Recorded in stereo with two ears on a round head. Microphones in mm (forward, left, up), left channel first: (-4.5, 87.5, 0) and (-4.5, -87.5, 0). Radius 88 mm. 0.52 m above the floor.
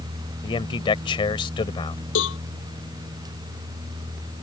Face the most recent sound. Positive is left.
turn(degrees=70)  # may be behind; listen again after turning